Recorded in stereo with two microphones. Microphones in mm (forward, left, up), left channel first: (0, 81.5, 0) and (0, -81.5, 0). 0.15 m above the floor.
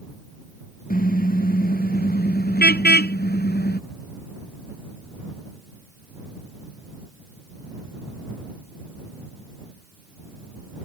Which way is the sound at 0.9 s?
60° left (ahead or behind).